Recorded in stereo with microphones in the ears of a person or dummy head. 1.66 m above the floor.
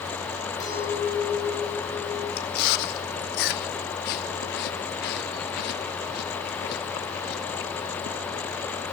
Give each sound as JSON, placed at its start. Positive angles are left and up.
{"t": 0.6, "sound": "a clink", "side_deg": 20, "distance_m": 8.0}
{"t": 2.4, "sound": "chewing", "side_deg": 55, "distance_m": 0.7}